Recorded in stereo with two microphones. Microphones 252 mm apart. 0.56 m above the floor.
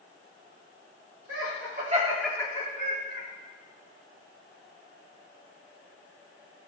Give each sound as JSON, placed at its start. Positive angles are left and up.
{"t": 1.3, "sound": "laughter", "side_deg": -60, "distance_m": 1.5}